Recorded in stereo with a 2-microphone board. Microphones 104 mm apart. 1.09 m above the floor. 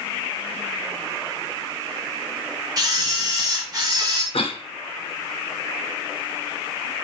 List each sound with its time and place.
2.8 s a camera shutter: 35° right (ahead or behind), 3.5 m
4.3 s a cough: 65° left (ahead or behind), 1.3 m